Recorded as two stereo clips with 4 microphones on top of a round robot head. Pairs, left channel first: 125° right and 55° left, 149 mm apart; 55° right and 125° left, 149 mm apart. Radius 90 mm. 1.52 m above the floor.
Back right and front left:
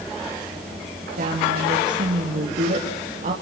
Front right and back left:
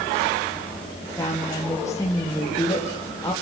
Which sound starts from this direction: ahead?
A woman speaking, at 1.2 s.